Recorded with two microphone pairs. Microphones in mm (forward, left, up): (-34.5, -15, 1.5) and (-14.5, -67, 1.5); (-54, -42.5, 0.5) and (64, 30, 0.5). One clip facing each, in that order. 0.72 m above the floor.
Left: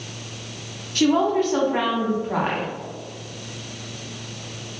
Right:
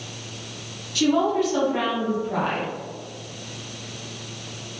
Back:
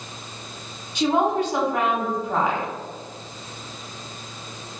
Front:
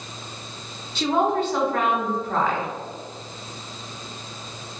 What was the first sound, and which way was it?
A woman speaking, 140° left.